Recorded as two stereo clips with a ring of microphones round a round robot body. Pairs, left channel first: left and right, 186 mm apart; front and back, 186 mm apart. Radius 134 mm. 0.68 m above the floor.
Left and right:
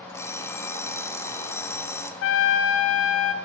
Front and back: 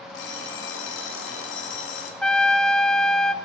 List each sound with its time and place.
0.1 s an alarm clock: 15° left, 1.3 m
2.2 s a trumpet: 85° left, 0.6 m